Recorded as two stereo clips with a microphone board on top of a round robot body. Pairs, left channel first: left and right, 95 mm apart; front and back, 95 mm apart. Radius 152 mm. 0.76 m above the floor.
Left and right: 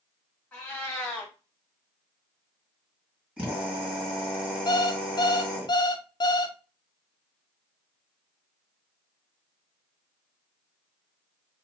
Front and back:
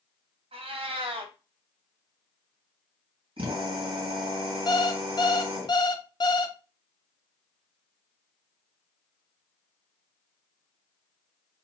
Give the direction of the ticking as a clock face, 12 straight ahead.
No ticking in this recording.